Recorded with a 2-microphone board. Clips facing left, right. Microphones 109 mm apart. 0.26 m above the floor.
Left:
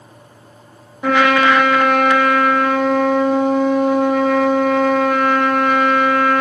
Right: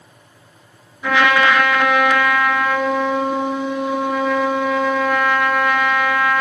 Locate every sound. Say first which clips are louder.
1.0 s a trumpet: left 2 dB; 55° left (ahead or behind), 0.8 m